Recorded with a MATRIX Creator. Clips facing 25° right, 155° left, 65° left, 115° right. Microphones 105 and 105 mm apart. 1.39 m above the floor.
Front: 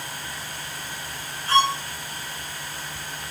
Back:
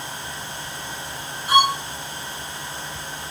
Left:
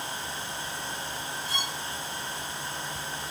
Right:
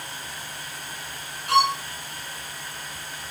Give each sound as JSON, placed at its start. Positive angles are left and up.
{"t": 1.5, "sound": "a violin", "azimuth_deg": -125}